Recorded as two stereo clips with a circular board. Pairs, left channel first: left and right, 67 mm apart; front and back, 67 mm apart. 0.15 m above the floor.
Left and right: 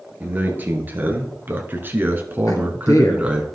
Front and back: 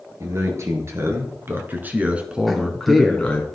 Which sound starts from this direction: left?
A man speaking, at 2.5 s.